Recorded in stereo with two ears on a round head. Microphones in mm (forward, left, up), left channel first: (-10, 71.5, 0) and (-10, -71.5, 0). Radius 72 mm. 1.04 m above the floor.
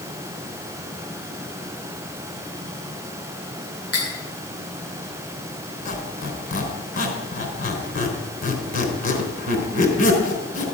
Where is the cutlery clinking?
65° left (ahead or behind), 8.5 m.